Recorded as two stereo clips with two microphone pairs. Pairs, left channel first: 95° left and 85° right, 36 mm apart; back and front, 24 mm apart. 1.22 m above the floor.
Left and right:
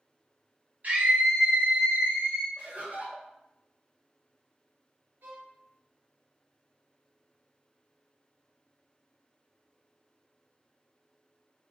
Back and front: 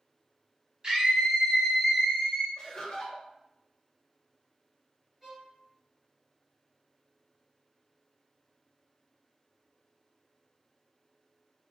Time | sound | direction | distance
0.8 | a scream | 50° right | 1.4 m
2.6 | laughter | 125° right | 1.2 m
5.2 | a violin | 75° right | 0.9 m